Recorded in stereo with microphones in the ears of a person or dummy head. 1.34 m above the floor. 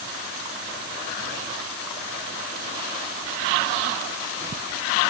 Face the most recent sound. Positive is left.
No sound to turn to.